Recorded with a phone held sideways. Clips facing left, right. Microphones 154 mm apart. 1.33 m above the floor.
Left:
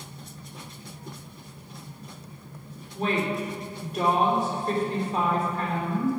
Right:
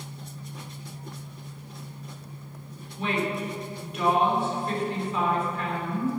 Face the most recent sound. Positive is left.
turn(degrees=40)  # may be behind; listen again after turning